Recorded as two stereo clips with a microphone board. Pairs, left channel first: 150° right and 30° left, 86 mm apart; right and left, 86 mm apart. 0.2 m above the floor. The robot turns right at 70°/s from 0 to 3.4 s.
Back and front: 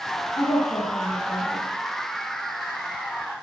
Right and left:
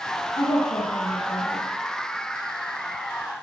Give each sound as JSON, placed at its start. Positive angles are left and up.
{"t": 0.4, "sound": "a woman speaking", "azimuth_deg": -115, "distance_m": 6.0}